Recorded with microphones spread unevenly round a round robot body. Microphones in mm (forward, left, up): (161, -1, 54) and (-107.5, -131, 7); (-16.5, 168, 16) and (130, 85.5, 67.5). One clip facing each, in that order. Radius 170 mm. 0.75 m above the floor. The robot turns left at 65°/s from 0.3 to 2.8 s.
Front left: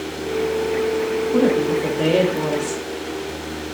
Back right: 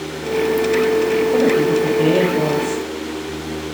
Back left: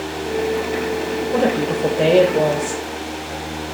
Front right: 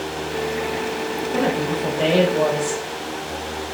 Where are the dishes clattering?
No dishes clattering in this recording.